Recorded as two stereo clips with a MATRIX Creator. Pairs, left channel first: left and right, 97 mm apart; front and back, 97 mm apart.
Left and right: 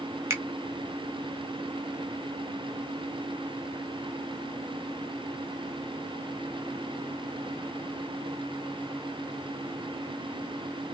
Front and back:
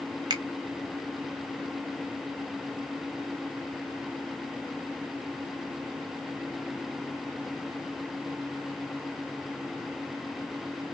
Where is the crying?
I don't hear crying.